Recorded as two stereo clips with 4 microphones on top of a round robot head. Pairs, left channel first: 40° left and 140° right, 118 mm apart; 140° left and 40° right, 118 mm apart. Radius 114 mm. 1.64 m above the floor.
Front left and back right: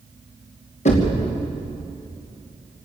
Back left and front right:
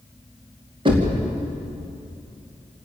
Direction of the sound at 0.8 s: 10° left.